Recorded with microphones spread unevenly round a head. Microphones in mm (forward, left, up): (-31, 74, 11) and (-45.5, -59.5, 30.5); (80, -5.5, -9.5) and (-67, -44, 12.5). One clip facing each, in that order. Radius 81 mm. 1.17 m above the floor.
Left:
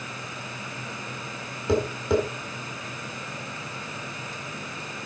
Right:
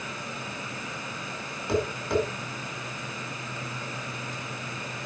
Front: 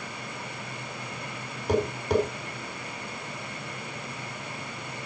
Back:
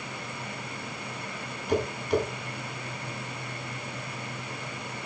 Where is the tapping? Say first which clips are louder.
Left 3 dB, front 2 dB; 75° left, 5 m.